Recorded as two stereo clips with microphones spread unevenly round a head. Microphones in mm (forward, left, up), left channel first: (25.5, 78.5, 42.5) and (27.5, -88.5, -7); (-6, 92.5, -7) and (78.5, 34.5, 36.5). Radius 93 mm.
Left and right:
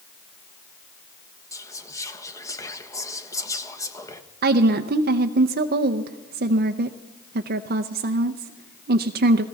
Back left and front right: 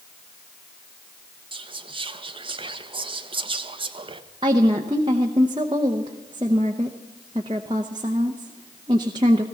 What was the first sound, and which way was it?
Whispering, 10° left.